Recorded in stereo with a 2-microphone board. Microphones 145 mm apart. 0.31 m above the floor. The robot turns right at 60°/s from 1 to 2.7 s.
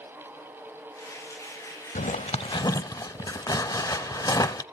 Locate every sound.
1.9 s a zipper: 65° left (ahead or behind), 0.6 m; by 4.6 s 25° left (ahead or behind), 0.6 m